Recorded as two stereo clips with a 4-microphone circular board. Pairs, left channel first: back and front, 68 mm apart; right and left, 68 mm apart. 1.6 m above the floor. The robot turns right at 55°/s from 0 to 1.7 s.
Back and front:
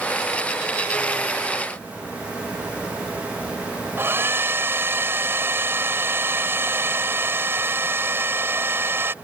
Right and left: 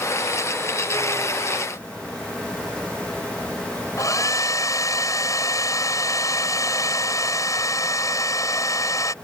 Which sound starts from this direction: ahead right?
A hair dryer, at 4.0 s.